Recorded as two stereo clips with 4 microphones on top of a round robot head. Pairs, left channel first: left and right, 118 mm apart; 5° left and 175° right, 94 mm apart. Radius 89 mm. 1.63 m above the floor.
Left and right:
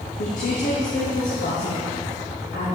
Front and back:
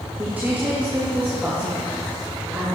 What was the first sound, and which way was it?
A woman speaking, 115° left.